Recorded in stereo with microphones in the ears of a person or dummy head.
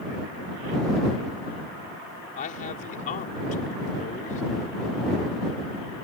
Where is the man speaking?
45° left (ahead or behind).